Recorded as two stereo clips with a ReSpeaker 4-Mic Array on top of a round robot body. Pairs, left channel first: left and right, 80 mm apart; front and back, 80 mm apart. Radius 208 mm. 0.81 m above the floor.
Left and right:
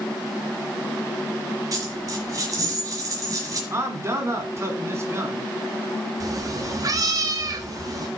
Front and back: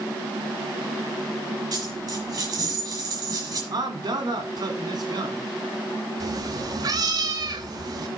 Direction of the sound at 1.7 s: 135° right.